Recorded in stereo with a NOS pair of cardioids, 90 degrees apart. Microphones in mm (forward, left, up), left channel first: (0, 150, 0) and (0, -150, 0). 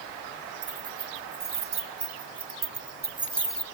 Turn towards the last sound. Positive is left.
turn(degrees=10)